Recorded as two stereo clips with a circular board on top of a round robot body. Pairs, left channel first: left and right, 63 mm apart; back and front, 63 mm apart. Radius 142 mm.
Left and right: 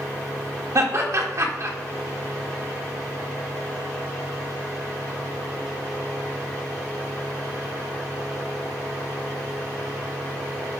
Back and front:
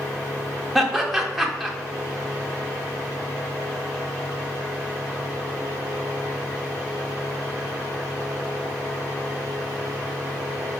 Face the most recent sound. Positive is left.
turn(degrees=-90)